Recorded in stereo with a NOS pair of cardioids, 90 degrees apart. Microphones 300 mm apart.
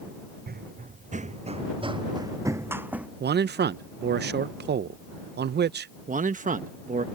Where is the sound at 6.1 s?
25° right.